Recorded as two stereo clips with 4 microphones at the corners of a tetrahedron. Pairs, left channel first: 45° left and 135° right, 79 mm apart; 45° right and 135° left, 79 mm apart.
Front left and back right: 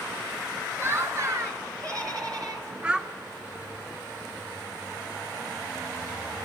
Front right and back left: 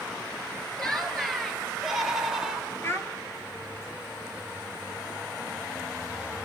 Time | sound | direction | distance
0.8 | laughter | 125° right | 1.4 m
2.8 | a child speaking | 65° right | 0.8 m